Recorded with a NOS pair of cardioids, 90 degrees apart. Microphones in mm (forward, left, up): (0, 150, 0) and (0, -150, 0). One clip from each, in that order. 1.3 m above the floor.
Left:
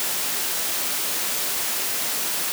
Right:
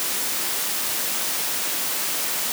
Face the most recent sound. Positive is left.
No sound to turn to.